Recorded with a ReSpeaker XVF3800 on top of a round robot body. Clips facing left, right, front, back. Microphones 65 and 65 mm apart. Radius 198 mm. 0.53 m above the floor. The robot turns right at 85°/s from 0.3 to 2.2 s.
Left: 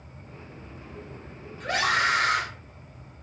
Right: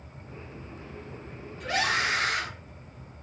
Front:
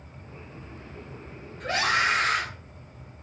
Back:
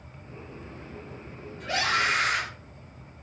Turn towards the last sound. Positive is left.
turn(degrees=95)